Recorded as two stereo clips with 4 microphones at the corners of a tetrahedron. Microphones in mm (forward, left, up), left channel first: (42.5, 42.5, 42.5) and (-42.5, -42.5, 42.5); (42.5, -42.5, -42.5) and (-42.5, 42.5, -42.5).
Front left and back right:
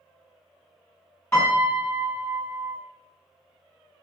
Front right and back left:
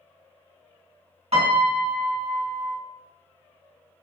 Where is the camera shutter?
No camera shutter in this recording.